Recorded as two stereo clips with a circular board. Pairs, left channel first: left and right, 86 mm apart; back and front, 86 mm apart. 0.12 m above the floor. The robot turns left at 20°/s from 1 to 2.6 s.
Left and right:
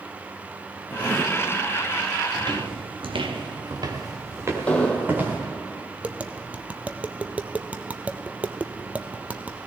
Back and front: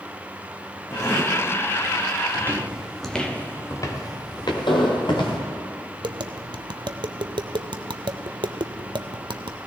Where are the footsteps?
60° right, 2 m; by 5.4 s 160° right, 4 m.